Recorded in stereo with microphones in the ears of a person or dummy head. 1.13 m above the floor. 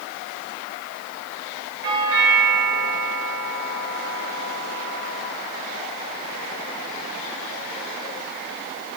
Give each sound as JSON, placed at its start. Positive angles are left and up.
{"t": 1.8, "sound": "a doorbell", "side_deg": -65, "distance_m": 6.0}